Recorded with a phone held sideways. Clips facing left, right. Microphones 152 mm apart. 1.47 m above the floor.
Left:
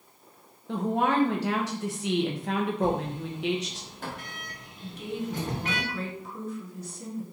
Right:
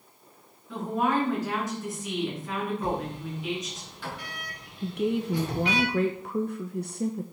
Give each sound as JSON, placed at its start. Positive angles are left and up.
{"t": 0.7, "sound": "a woman speaking", "side_deg": 75, "distance_m": 1.9}
{"t": 2.8, "sound": "a sliding door", "side_deg": 45, "distance_m": 1.9}
{"t": 4.8, "sound": "a woman speaking", "side_deg": -65, "distance_m": 0.7}